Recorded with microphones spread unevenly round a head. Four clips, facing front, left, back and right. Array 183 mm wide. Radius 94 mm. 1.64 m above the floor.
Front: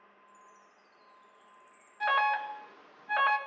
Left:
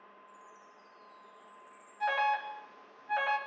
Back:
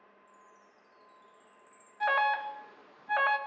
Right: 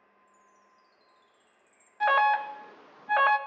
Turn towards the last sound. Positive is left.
turn(degrees=-75)